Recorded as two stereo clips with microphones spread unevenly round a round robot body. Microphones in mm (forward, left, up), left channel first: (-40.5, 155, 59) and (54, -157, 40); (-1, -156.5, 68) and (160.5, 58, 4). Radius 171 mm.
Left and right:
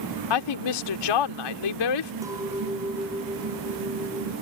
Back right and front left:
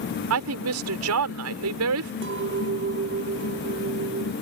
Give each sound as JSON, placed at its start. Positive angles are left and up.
{"t": 0.3, "sound": "a woman speaking", "azimuth_deg": 95}
{"t": 2.2, "sound": "a clink", "azimuth_deg": 10}